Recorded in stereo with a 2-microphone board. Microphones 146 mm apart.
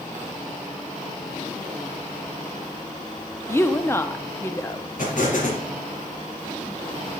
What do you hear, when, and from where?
3.5 s a woman speaking: 15° left (ahead or behind), 0.7 m
5.0 s an explosion: 65° left (ahead or behind), 3.5 m